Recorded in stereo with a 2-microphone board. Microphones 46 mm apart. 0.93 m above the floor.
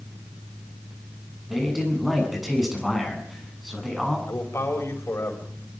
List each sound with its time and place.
1.5 s a man speaking: 5° right (ahead or behind), 8 m
4.3 s a man speaking: 75° left (ahead or behind), 5.5 m